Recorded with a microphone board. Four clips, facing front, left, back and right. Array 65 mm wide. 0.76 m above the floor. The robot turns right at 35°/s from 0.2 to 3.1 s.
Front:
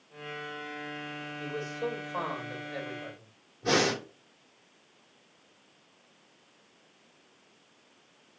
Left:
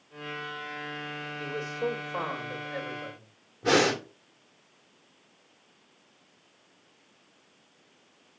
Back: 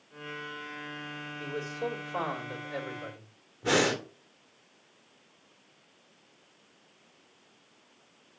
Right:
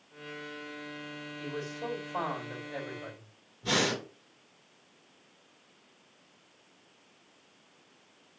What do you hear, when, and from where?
1.4 s a man speaking: 100° left, 3 m; by 3.3 s 160° left, 3 m
3.6 s breathing: 110° left, 1.0 m